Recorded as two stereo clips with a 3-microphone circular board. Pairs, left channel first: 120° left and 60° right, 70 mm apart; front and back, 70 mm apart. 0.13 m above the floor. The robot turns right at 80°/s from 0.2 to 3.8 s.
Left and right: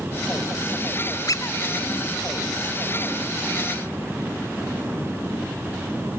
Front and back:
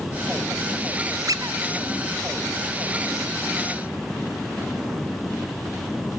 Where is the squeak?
150° left, 0.7 m; by 1.6 s 170° left, 0.7 m.